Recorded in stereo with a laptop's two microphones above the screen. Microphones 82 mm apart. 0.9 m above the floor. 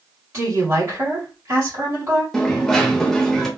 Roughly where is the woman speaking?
Right.